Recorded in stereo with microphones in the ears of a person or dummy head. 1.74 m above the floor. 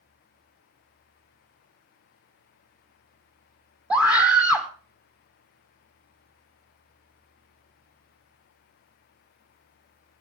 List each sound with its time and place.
3.9 s a scream: 5° right (ahead or behind), 0.7 m